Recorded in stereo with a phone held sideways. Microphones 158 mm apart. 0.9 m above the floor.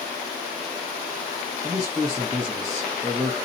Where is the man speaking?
25° right (ahead or behind), 0.8 m.